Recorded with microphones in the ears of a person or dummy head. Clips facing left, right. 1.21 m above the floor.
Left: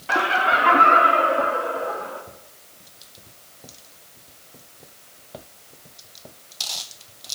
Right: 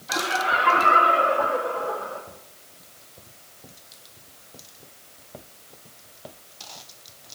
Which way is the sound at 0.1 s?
75° left (ahead or behind).